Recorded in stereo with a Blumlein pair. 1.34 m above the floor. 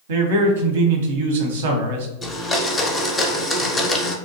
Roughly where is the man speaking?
Ahead right.